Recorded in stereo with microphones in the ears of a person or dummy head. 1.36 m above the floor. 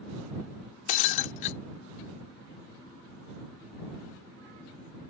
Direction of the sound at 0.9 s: 45° left (ahead or behind).